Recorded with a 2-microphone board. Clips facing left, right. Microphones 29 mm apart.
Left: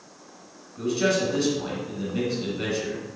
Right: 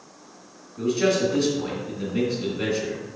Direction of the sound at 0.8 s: Centre (ahead or behind).